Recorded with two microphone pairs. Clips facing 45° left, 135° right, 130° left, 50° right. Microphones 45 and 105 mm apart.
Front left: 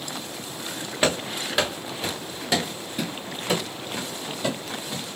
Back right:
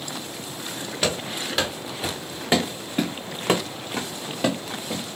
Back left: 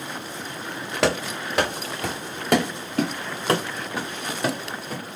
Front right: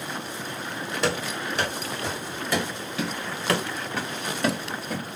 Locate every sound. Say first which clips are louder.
1.0 s running footsteps: front left 2 dB, back left 5 dB; 110° left, 1.4 m; by 5.1 s 140° right, 2 m